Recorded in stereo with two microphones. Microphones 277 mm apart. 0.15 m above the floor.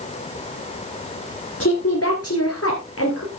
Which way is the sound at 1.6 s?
55° left (ahead or behind).